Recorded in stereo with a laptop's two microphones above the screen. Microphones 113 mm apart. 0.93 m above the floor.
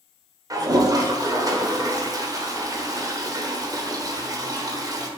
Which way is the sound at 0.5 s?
35° right (ahead or behind).